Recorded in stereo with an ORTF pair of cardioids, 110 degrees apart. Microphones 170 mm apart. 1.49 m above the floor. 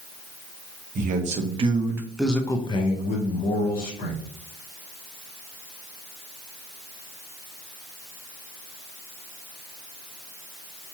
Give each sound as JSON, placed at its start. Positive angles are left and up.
{"t": 0.9, "sound": "a man speaking", "azimuth_deg": -55, "distance_m": 1.0}